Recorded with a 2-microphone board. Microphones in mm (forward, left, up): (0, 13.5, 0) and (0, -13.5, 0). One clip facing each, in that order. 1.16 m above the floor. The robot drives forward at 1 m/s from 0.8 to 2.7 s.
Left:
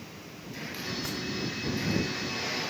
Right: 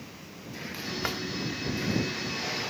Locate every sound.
1.0 s a drawer: 50° right (ahead or behind); by 1.2 s 45° right (ahead or behind)